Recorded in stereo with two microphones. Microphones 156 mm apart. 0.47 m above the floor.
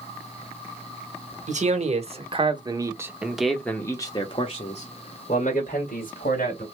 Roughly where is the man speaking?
Right.